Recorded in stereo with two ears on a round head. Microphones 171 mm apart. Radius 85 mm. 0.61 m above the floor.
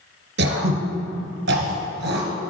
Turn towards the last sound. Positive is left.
turn(degrees=-65)  # may be behind; listen again after turning